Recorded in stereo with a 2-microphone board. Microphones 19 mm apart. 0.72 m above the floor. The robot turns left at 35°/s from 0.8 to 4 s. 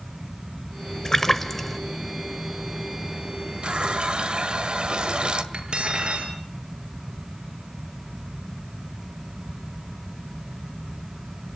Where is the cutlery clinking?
75° right (ahead or behind), 6.5 m.